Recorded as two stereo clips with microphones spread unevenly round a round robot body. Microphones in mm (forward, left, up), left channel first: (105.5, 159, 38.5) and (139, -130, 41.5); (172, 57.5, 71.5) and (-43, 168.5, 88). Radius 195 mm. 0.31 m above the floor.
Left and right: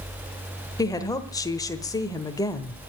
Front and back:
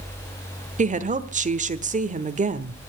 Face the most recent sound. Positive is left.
turn(degrees=160)